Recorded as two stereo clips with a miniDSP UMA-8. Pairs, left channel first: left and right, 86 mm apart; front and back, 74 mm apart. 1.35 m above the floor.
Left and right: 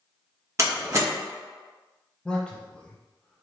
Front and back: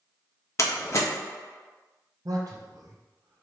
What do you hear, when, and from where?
0.6 s a door slam: 40° right, 0.9 m
2.2 s a man speaking: 165° left, 0.5 m